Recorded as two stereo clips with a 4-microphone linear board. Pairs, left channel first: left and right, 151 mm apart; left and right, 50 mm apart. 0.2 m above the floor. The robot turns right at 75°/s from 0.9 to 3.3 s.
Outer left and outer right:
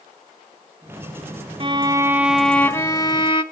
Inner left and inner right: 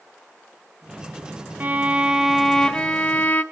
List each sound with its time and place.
1.6 s a violin: 60° right, 0.9 m; by 3.4 s 65° left, 0.9 m